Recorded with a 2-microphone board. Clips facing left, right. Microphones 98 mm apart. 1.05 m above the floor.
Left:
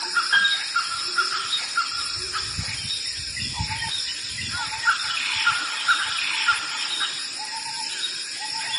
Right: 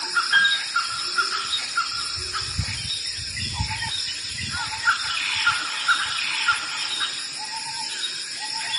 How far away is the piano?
About 3 m.